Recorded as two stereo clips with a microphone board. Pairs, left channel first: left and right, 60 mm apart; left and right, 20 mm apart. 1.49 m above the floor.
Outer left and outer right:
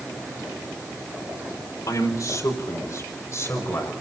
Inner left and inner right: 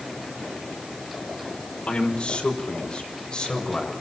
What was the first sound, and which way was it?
A man speaking, 75° left (ahead or behind).